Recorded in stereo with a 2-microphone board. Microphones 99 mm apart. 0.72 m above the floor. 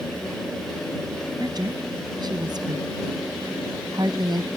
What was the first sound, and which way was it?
A woman speaking, 45° right (ahead or behind).